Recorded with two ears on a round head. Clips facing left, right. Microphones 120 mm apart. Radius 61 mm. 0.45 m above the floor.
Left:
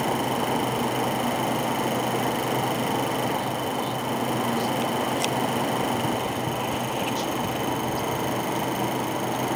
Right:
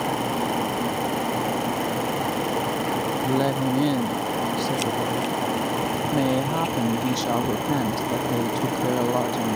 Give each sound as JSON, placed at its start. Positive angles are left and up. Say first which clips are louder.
{"t": 3.2, "sound": "a woman speaking", "louder": "right 4 dB", "side_deg": -70}